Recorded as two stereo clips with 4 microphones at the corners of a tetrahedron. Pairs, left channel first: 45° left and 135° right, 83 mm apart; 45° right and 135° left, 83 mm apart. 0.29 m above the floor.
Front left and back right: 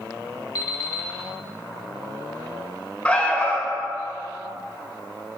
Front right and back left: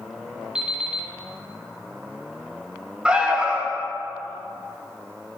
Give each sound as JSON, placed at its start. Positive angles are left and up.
{"t": 0.6, "sound": "an alarm clock", "azimuth_deg": 60, "distance_m": 0.9}
{"t": 3.0, "sound": "an alarm", "azimuth_deg": 90, "distance_m": 0.8}